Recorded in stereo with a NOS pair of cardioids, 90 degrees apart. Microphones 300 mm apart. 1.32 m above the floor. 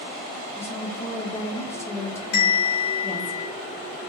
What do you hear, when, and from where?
0.6 s a woman speaking: 10° left, 0.8 m
2.3 s a bell: 60° left, 1.5 m